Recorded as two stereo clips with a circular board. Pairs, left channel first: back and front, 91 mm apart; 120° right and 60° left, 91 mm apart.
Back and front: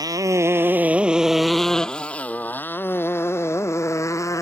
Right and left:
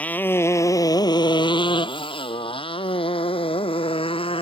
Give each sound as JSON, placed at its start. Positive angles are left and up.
{"t": 0.0, "sound": "a motorcycle", "azimuth_deg": -45}